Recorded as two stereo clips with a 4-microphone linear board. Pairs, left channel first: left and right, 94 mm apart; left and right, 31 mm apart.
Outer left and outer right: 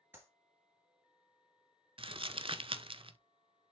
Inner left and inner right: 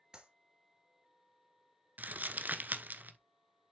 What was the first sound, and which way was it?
A clap, 20° right (ahead or behind).